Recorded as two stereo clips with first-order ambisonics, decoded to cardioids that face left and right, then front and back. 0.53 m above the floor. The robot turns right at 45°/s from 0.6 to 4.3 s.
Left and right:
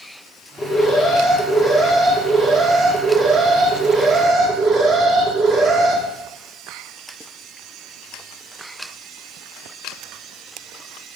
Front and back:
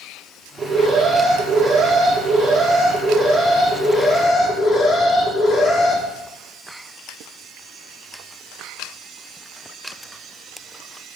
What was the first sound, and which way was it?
An alarm, 105° left.